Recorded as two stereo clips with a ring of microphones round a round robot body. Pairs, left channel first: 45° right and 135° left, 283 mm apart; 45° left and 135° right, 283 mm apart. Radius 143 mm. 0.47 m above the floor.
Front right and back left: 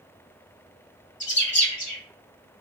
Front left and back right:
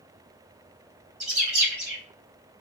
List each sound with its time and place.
1.2 s a bird: 80° right, 1.7 m